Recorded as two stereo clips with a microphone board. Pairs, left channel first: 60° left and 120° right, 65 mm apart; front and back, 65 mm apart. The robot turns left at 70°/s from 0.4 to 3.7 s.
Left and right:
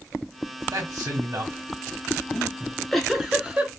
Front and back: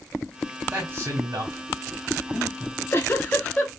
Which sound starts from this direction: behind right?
A man speaking, at 0.7 s.